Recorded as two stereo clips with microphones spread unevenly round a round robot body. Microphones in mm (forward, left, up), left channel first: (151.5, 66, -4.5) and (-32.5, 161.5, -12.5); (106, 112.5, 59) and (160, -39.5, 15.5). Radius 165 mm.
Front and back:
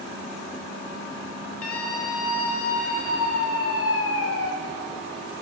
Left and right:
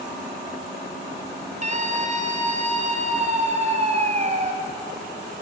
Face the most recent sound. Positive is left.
turn(degrees=-20)